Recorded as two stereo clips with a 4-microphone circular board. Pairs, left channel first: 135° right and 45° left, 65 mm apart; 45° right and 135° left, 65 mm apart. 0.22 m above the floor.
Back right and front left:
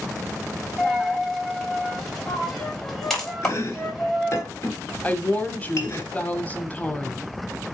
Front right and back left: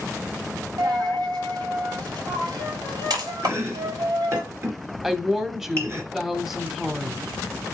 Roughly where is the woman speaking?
Behind right.